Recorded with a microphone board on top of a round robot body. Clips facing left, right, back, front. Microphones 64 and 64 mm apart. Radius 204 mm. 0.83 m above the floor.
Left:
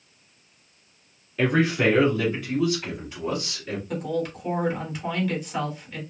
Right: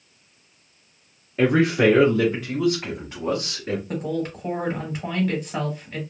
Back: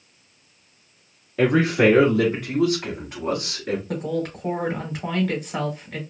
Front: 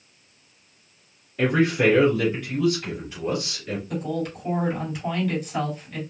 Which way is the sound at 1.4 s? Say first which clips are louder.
Right 3 dB, back 2 dB; 160° right.